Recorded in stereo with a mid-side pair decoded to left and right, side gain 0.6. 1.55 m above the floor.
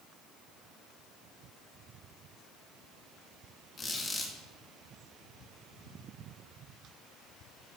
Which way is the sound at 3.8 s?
30° left.